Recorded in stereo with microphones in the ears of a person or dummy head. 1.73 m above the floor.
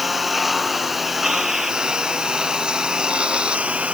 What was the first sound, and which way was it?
A lawn mower, centre (ahead or behind).